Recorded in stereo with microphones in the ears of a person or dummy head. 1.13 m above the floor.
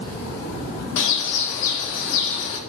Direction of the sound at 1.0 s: 70° left (ahead or behind).